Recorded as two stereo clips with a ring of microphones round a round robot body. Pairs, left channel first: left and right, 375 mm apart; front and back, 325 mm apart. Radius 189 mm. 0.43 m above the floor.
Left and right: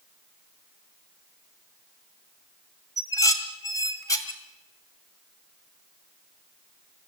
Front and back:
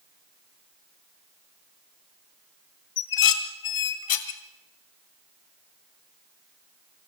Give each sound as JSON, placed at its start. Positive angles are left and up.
{"t": 3.0, "sound": "dishes clattering", "azimuth_deg": 10, "distance_m": 1.7}